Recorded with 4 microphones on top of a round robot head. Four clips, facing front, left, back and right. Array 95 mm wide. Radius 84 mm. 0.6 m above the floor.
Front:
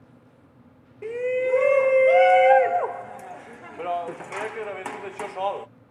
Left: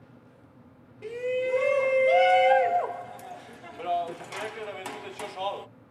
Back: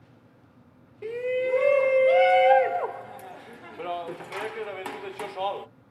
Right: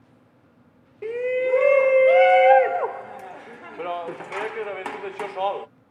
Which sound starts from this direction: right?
A shout, at 1.0 s.